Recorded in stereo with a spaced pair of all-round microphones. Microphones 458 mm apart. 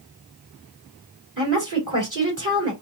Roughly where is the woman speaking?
Right.